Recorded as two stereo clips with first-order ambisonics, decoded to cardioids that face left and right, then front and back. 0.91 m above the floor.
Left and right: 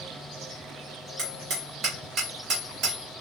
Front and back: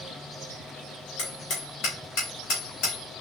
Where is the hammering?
40° right, 3 m.